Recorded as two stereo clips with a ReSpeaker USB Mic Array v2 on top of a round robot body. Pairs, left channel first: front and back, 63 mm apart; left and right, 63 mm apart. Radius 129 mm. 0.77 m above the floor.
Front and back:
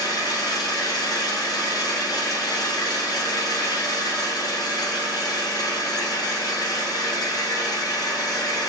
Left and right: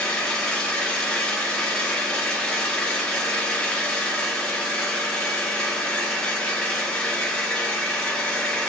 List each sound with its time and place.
0.0 s an engine running: 15° left, 1.3 m